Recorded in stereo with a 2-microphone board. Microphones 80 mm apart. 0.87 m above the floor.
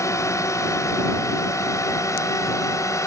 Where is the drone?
45° left (ahead or behind).